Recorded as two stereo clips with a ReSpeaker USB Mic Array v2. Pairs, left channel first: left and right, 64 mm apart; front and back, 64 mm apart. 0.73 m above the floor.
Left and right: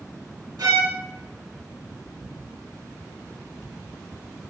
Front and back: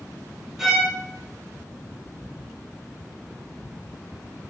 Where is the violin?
90° right, 0.7 m.